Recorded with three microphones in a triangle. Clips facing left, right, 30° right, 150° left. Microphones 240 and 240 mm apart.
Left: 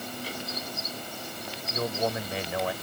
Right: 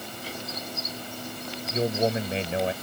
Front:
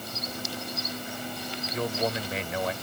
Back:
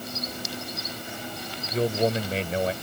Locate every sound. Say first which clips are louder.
1.7 s a man speaking: right 5 dB, back 6 dB; 155° right